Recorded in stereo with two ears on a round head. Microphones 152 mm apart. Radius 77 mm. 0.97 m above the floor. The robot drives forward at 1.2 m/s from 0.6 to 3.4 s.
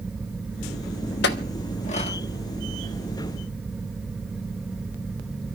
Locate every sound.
1.2 s a clink: 70° left (ahead or behind), 1.1 m; by 2.2 s 35° left (ahead or behind), 1.7 m